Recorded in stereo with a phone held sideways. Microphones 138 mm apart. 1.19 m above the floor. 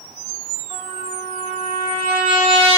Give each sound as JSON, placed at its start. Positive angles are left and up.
{"t": 0.7, "sound": "a trumpet", "side_deg": -45, "distance_m": 6.0}